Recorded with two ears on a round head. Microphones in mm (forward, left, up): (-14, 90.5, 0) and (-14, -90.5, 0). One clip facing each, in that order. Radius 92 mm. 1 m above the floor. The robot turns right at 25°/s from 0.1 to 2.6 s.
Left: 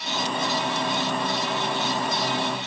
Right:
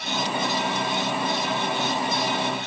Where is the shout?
No shout in this recording.